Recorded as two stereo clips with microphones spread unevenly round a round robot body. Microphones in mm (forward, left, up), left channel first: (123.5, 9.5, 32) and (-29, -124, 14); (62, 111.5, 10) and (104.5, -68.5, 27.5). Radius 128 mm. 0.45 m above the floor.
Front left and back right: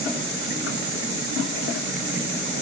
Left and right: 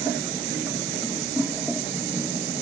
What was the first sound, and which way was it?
Only background noise.